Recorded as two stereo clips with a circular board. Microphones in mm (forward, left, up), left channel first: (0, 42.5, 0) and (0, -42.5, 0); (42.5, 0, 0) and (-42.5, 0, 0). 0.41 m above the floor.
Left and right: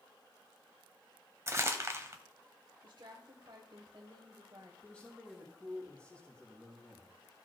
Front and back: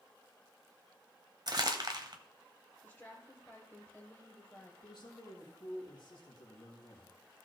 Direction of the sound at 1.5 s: 145° right.